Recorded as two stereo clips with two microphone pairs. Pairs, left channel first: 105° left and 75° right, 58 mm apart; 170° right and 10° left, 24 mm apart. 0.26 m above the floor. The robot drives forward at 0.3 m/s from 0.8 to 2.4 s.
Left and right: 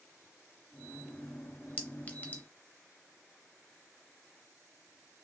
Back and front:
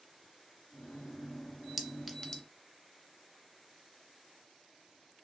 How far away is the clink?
About 0.5 m.